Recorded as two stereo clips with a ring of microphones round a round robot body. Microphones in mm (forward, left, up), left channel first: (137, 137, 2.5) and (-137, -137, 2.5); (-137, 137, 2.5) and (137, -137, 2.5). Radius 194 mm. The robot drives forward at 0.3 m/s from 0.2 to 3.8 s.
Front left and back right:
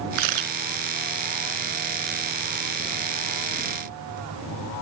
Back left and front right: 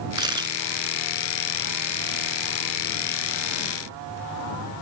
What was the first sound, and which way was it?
A camera shutter, 125° right.